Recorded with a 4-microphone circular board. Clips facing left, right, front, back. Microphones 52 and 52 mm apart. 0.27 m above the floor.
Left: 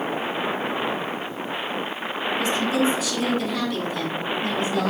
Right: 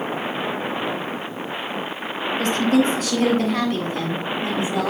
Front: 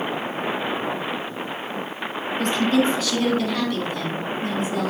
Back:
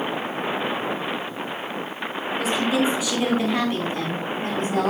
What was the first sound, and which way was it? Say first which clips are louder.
A woman speaking: right 4 dB, front 2 dB; 95° right.